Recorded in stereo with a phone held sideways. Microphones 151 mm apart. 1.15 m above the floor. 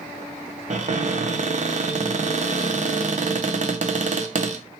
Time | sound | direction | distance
0.7 | a cupboard door | 50° right (ahead or behind) | 0.6 m